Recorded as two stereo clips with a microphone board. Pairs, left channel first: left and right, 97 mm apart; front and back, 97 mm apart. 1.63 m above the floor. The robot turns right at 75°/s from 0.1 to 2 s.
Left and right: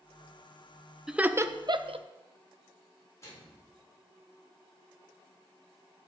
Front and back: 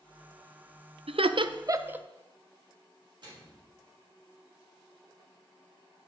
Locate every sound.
1.1 s laughter: 175° right, 0.5 m; by 2.0 s 105° right, 0.5 m
3.2 s a microwave: 145° left, 3.5 m